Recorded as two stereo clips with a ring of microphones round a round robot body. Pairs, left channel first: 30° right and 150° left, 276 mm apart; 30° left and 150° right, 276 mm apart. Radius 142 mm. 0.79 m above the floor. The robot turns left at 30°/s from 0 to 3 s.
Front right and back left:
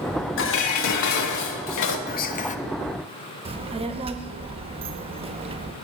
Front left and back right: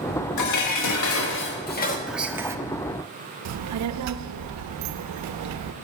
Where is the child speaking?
140° right, 0.6 m.